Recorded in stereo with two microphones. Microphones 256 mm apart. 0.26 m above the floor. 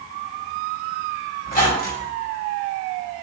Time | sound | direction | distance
1.4 | a squeak | 35° left (ahead or behind) | 1.2 m